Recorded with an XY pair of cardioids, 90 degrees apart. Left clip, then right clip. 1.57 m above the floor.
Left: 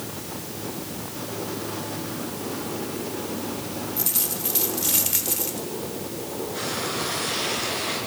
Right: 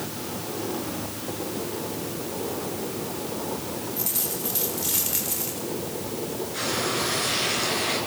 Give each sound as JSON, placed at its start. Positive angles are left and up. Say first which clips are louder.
{"t": 4.0, "sound": "a dropped coin", "louder": "left 1 dB", "azimuth_deg": 35, "distance_m": 3.0}
{"t": 6.5, "sound": "frying", "louder": "right 2 dB", "azimuth_deg": -5, "distance_m": 9.5}